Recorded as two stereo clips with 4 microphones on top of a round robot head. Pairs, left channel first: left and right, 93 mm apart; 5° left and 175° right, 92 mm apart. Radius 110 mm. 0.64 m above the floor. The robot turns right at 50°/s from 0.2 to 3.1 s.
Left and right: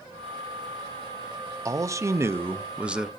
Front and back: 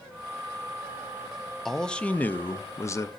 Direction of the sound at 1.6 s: 80° right.